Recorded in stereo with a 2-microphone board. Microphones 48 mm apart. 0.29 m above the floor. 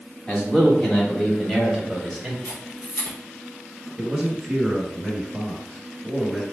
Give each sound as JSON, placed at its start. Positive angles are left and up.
{"t": 0.3, "sound": "a man speaking", "side_deg": 25, "distance_m": 2.0}
{"t": 2.5, "sound": "a camera shutter", "side_deg": 60, "distance_m": 2.0}
{"t": 4.0, "sound": "a man speaking", "side_deg": -10, "distance_m": 1.1}